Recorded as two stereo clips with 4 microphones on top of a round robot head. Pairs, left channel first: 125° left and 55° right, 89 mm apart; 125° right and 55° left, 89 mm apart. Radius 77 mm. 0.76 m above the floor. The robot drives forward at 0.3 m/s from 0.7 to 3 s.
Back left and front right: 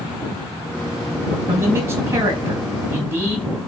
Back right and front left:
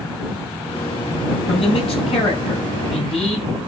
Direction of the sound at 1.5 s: 120° right.